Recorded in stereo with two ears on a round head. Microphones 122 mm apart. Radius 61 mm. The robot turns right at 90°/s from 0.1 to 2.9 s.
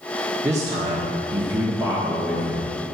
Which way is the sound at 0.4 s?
155° right.